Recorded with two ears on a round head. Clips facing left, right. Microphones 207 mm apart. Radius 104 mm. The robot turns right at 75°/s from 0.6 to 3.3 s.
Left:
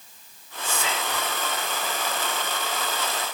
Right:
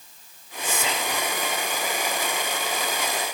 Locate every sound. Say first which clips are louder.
0.6 s whispering: right 1 dB; 120° right, 1.6 m; by 1.3 s 70° right, 1.6 m